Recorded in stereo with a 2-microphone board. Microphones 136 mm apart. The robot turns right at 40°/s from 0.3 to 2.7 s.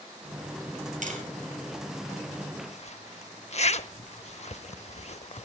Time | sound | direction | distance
1.0 | tapping | 65° right (ahead or behind) | 2.5 m
2.7 | a zipper | 55° left (ahead or behind) | 0.6 m